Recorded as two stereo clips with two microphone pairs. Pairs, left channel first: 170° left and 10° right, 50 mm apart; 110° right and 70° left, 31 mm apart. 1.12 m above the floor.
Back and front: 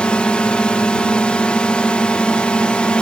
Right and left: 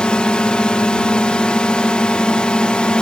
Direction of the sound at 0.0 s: 140° right.